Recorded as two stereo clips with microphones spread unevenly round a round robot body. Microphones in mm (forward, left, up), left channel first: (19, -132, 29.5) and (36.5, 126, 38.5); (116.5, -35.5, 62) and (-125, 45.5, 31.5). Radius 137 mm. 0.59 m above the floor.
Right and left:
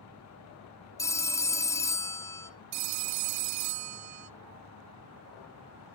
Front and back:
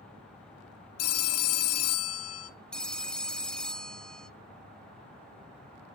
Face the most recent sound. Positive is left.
turn(degrees=70)